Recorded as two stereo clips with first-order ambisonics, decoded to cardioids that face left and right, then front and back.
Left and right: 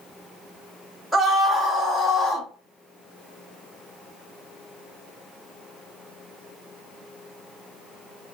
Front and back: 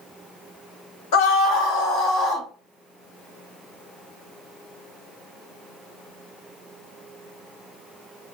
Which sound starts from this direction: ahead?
A scream, at 1.1 s.